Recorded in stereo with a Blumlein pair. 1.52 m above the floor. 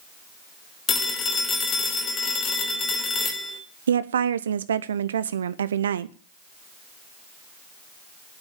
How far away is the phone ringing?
About 3 m.